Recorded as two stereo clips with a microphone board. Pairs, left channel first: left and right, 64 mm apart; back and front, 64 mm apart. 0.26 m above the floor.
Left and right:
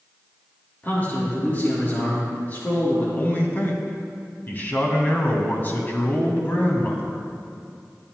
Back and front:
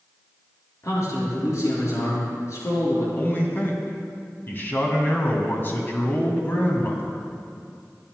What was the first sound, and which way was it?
A man speaking, 150° left.